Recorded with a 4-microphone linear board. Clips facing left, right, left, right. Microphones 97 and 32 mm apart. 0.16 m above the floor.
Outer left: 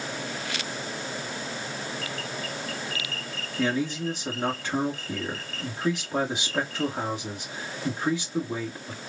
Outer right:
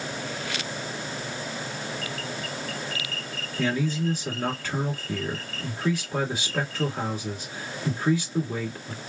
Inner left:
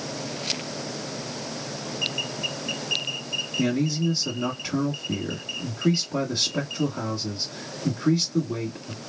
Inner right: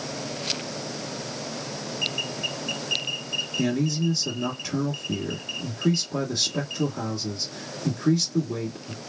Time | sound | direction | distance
3.6 | a man speaking | 20° left (ahead or behind) | 1.5 m